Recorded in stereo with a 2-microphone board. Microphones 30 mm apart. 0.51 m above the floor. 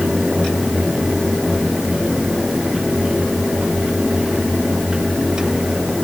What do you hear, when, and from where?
Only background noise.